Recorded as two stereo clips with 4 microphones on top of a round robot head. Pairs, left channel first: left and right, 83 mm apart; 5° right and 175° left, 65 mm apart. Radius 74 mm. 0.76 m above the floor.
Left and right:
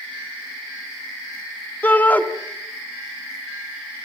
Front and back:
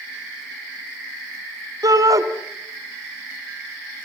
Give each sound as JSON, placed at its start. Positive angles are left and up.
{"t": 1.8, "sound": "a shout", "azimuth_deg": 160, "distance_m": 2.5}